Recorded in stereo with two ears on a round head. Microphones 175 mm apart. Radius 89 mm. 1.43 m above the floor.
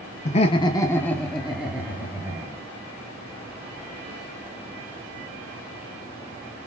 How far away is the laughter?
About 0.7 m.